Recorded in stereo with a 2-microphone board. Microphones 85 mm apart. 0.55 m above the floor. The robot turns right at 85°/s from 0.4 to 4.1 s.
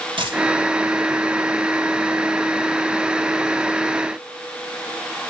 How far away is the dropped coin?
About 3.5 m.